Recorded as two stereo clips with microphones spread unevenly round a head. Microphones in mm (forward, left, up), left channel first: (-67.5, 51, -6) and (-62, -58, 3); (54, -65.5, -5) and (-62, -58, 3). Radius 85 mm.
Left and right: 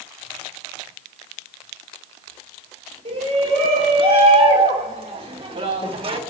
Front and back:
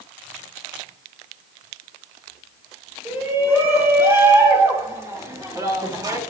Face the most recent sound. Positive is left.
turn(degrees=-125)